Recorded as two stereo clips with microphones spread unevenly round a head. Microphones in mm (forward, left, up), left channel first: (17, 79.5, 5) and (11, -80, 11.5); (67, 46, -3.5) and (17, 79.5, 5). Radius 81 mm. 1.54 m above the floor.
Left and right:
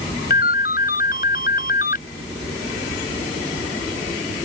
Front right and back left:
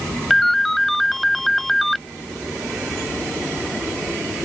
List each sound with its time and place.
0.3 s a ringtone: 55° left